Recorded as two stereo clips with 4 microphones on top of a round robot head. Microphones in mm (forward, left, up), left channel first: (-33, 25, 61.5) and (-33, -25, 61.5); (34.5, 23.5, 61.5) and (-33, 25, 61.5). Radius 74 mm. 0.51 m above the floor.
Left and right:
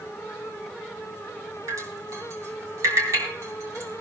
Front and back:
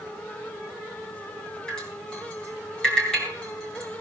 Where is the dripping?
80° right, 6 m.